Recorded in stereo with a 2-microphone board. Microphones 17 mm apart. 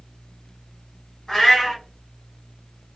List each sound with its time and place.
1.3 s a cat meowing: 25° left (ahead or behind), 1.8 m